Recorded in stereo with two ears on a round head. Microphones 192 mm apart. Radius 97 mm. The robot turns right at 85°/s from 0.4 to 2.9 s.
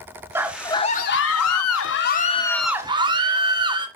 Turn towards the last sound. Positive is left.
turn(degrees=-160)